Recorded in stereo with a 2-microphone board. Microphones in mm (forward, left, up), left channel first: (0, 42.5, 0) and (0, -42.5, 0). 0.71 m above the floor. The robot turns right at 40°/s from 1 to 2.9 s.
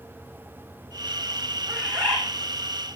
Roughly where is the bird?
Right.